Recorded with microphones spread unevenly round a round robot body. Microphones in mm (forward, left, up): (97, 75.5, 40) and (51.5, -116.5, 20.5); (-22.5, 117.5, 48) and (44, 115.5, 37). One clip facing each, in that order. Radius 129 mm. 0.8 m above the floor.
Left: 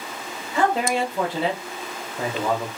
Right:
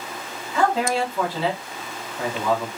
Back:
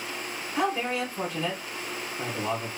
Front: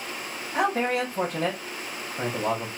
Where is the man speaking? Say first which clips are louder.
Even, front 3 dB; 5° left, 1.5 m.